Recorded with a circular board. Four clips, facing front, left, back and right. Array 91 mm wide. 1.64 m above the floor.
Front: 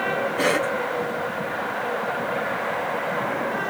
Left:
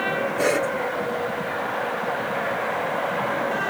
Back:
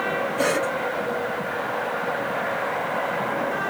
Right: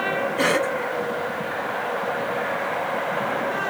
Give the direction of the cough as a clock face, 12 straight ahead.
2 o'clock.